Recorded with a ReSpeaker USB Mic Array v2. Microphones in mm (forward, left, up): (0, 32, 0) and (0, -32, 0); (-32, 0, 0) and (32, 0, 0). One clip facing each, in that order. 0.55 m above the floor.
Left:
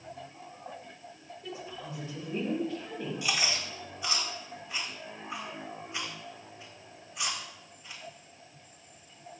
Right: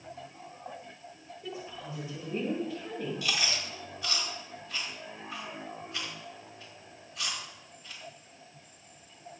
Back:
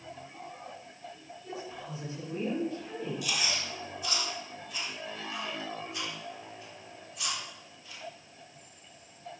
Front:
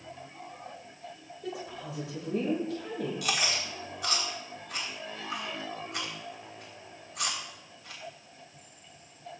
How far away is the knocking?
I don't hear knocking.